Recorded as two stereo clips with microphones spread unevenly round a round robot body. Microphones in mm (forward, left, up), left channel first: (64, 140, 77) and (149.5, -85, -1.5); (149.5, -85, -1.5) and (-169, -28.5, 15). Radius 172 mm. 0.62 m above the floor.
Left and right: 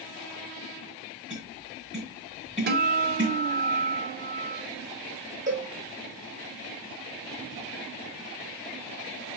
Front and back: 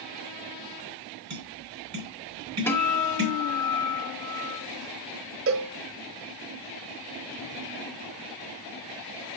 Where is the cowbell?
140° right, 0.8 m.